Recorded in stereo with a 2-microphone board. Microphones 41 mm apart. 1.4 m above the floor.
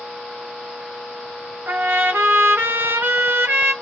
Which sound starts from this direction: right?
A trumpet, at 1.7 s.